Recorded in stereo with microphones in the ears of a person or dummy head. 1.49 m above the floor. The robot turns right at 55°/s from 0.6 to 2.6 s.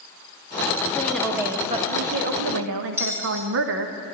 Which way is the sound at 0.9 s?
170° left.